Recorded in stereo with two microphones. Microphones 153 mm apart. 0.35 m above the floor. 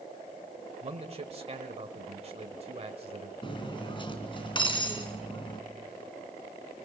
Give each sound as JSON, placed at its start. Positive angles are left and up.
{"t": 0.8, "sound": "a man speaking", "side_deg": -40, "distance_m": 1.5}
{"t": 3.4, "sound": "cutlery clinking", "side_deg": 35, "distance_m": 2.5}